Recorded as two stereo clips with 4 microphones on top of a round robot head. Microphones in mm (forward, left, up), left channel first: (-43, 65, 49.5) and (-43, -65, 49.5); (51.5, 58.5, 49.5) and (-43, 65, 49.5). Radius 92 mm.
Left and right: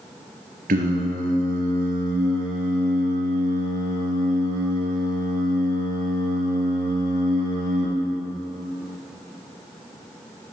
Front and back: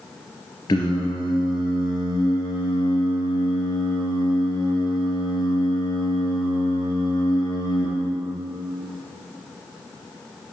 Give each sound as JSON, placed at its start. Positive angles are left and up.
{"t": 0.7, "sound": "singing", "azimuth_deg": -65, "distance_m": 3.0}